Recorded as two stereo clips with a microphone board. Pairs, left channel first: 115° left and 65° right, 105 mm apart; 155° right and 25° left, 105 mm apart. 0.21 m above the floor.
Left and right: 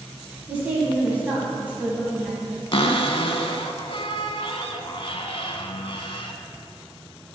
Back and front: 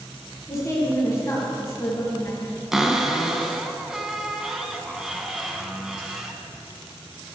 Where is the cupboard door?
105° left, 0.6 m.